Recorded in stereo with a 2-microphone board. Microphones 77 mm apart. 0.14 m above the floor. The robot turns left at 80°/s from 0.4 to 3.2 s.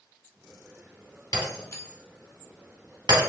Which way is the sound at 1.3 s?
55° left (ahead or behind).